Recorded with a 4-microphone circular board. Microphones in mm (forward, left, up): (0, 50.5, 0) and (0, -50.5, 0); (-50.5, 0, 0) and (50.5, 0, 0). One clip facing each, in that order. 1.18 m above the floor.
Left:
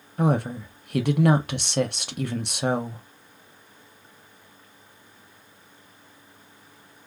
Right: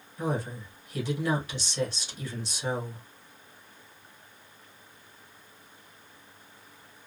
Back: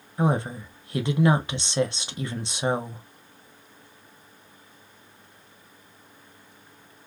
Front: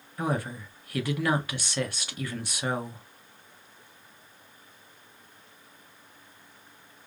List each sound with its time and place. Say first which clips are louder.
0.2 s a woman speaking: left 8 dB, back 5 dB; 115° left, 0.6 m